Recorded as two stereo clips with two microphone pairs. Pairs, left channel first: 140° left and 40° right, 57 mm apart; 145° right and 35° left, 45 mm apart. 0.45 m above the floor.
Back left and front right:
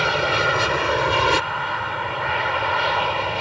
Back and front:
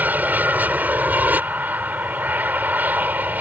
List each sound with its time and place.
0.0 s an aircraft: 45° left